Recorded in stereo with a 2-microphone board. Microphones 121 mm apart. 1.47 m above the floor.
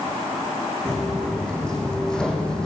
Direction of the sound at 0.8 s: 5° left (ahead or behind).